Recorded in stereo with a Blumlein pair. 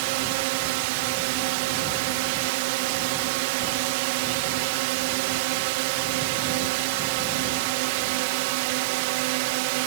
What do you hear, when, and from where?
0.0 s a drone: 45° right